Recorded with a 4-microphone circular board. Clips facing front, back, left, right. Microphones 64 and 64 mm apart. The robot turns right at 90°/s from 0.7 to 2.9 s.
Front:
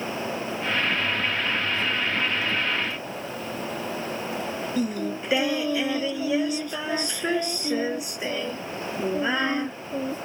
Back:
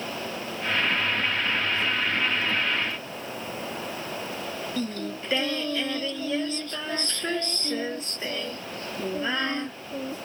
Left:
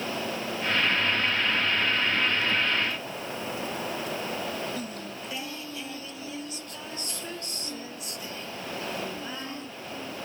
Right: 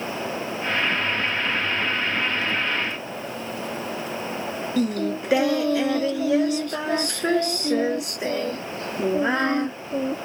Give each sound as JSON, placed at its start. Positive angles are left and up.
{"t": 4.8, "sound": "singing", "azimuth_deg": -75}